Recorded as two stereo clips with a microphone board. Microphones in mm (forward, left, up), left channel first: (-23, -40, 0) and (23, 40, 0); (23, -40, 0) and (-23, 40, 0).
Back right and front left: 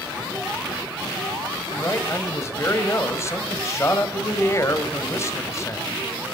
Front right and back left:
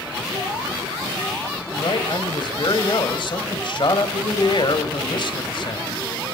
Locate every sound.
1.7 s a man speaking: 65° right, 1.6 m